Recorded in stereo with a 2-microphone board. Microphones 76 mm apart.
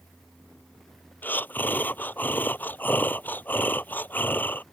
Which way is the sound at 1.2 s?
25° left (ahead or behind).